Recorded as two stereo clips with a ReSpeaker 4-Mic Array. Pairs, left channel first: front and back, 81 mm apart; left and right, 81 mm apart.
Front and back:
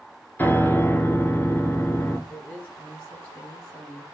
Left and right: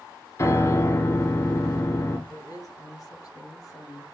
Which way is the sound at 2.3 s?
55° left.